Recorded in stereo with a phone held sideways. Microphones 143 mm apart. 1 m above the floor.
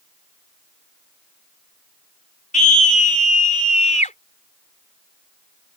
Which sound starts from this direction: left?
A scream, at 2.5 s.